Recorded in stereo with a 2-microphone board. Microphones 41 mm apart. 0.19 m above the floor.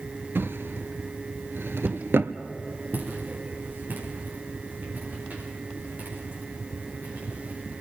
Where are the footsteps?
55° right (ahead or behind), 5.5 m; by 7.8 s 40° right (ahead or behind), 12 m.